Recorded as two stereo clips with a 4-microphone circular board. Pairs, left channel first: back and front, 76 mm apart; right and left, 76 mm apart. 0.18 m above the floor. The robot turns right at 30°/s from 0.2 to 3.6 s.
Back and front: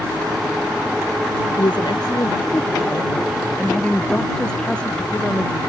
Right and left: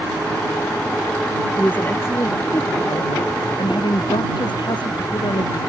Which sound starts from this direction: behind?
A woman speaking, at 1.6 s.